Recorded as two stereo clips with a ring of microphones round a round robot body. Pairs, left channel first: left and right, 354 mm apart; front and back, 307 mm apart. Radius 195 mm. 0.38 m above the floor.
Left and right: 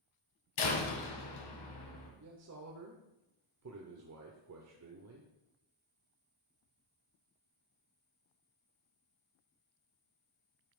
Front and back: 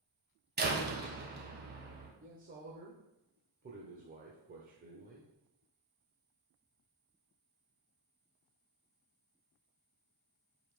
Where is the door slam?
120° left, 2 m.